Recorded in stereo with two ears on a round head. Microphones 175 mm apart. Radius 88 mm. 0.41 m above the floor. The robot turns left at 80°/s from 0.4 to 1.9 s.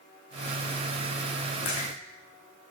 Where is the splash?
35° left (ahead or behind), 9.5 m; by 1.9 s 20° left (ahead or behind), 9.5 m.